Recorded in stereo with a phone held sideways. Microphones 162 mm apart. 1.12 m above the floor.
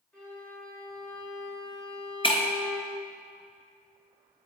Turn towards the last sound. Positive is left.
turn(degrees=35)  # may be behind; listen again after turning